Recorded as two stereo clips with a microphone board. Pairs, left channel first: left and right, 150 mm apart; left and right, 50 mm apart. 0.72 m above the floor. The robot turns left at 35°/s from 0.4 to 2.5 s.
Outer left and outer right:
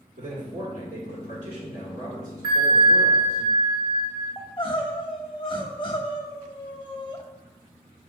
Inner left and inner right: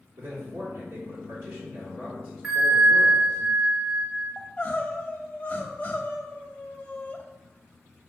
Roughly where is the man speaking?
Right.